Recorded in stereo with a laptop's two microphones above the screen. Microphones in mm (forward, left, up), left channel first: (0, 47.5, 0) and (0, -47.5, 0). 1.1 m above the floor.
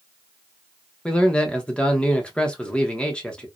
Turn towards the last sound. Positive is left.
turn(degrees=10)  # may be behind; listen again after turning